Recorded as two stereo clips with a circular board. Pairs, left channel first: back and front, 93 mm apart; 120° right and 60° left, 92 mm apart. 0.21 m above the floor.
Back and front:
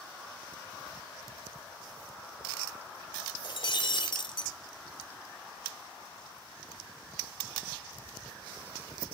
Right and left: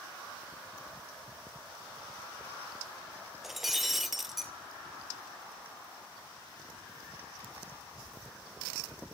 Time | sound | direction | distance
3.4 | breaking glass | 145° left | 0.7 m